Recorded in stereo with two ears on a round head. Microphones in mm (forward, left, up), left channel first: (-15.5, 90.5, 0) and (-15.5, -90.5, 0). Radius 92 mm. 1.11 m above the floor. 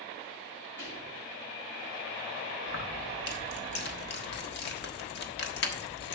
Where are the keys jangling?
55° left (ahead or behind), 1.4 m.